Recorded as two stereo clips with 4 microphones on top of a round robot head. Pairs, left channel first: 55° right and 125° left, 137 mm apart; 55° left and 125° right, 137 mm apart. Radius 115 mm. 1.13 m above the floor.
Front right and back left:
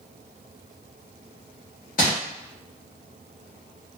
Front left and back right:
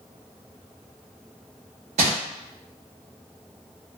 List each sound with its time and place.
2.0 s crumpling: 85° right, 1.1 m